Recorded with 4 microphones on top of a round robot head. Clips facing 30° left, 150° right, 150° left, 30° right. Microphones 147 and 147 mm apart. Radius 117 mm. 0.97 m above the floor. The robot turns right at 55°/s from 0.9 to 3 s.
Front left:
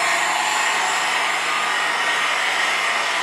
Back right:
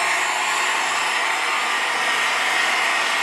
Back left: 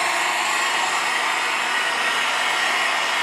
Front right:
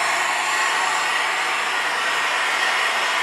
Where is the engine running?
90° left, 1.2 m; by 3.2 s 155° right, 1.2 m.